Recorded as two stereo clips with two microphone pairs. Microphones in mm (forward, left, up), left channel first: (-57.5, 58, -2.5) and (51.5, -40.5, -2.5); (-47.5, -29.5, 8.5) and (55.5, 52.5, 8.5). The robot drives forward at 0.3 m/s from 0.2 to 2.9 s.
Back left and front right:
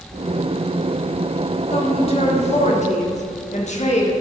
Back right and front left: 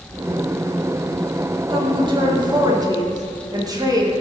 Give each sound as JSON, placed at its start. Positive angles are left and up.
{"t": 1.7, "sound": "a woman speaking", "azimuth_deg": 90, "distance_m": 1.8}